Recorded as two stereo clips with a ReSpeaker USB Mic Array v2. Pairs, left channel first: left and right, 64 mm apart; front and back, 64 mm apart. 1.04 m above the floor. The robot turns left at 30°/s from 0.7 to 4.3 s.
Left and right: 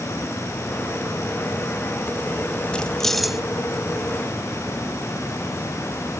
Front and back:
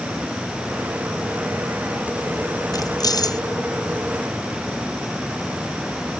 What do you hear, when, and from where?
2.7 s keys jangling: 15° left; by 3.4 s 5° right